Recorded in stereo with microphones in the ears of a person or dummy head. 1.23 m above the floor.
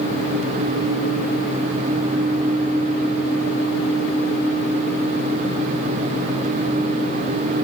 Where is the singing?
I don't hear singing.